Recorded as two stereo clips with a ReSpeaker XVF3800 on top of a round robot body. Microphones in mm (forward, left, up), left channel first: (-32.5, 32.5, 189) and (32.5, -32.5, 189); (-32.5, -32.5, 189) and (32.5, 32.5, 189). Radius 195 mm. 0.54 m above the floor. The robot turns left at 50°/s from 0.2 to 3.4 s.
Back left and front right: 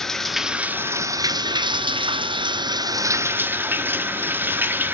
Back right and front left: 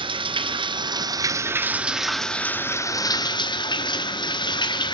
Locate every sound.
0.0 s running water: 50° left, 1.5 m; by 4.9 s 110° right, 1.5 m